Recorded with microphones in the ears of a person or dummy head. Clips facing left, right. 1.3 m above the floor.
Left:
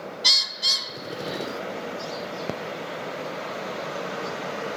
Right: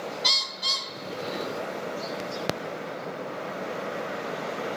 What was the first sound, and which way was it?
A bird, 15° left (ahead or behind).